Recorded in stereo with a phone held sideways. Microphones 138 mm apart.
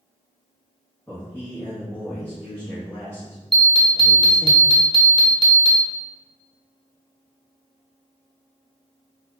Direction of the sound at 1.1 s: 20° left (ahead or behind).